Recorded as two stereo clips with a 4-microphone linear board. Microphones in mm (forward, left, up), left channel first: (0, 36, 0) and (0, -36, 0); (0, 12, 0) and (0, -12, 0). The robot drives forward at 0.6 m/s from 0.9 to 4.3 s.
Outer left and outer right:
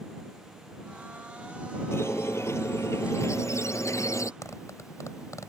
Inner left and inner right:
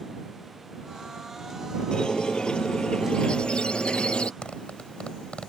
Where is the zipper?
50° left (ahead or behind).